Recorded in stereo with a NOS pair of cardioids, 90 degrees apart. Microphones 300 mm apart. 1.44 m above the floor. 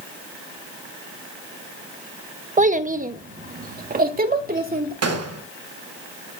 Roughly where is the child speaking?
Ahead right.